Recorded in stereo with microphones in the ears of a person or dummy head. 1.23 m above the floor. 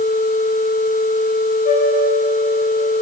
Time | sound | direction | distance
1.6 | a flute | 50° left (ahead or behind) | 4.5 m